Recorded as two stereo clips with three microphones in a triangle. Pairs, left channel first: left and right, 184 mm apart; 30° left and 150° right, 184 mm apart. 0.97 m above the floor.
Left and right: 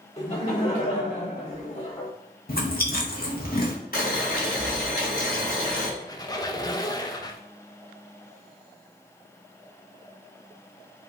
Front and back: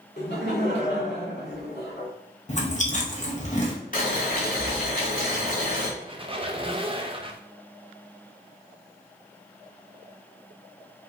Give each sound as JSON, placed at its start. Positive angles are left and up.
{"t": 0.2, "sound": "laughter", "azimuth_deg": 40, "distance_m": 2.0}
{"t": 2.5, "sound": "chewing", "azimuth_deg": 70, "distance_m": 0.9}
{"t": 3.9, "sound": "boiling", "azimuth_deg": 65, "distance_m": 1.7}
{"t": 6.0, "sound": "a squeak", "azimuth_deg": 160, "distance_m": 0.6}